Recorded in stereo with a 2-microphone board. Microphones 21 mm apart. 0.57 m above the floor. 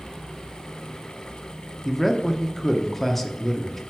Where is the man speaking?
10° left (ahead or behind), 0.7 m.